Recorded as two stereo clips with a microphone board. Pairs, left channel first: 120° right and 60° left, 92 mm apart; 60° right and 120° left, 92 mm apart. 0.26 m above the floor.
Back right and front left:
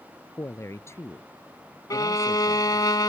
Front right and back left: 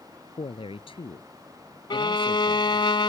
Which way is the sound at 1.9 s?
80° right.